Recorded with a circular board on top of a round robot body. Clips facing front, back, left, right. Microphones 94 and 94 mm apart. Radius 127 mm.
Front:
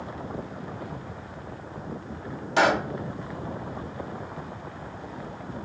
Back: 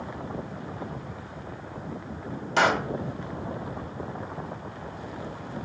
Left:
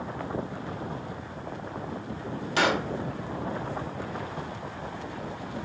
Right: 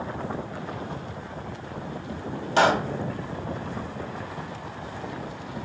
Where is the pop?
90° right, 1.0 m.